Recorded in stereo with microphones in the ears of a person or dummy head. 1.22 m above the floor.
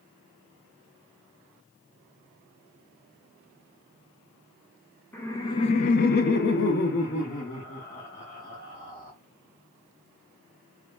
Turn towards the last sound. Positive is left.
turn(degrees=40)  # may be behind; listen again after turning